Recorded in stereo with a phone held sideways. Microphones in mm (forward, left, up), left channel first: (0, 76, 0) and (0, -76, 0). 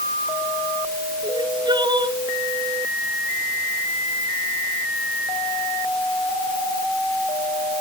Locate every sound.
1.2 s crying: 30° right (ahead or behind)